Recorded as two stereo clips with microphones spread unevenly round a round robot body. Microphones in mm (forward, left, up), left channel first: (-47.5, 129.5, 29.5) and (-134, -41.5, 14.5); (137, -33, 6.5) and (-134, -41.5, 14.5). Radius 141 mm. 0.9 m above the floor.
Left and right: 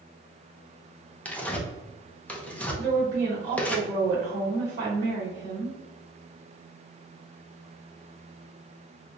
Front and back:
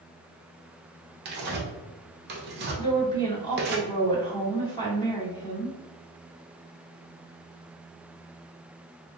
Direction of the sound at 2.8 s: 70° right.